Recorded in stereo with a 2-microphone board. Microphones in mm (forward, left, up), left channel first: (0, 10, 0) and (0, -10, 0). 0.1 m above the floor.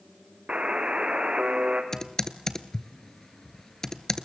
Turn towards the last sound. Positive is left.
turn(degrees=25)  # may be behind; listen again after turning